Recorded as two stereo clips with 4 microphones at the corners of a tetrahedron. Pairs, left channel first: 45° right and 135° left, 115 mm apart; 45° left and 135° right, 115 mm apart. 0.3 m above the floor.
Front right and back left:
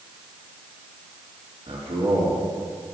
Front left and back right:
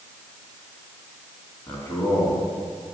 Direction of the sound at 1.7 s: 115° left.